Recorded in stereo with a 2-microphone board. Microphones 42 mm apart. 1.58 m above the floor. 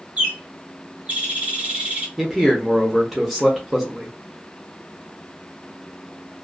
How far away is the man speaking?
About 0.6 m.